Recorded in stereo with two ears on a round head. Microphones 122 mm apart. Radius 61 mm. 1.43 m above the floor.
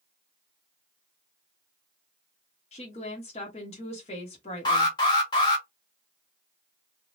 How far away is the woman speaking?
About 0.9 m.